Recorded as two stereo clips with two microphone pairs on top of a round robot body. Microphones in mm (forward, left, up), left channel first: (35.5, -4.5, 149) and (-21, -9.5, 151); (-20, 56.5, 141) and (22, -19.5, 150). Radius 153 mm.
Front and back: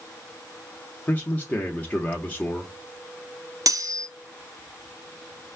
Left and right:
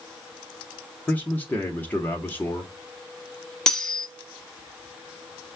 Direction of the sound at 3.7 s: 160° right.